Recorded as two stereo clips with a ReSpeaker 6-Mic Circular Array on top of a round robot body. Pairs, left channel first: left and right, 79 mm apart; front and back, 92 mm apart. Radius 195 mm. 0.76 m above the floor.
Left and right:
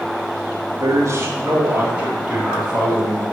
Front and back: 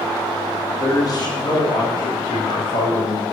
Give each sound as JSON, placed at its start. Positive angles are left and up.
{"t": 0.8, "sound": "a man speaking", "azimuth_deg": -55, "distance_m": 2.5}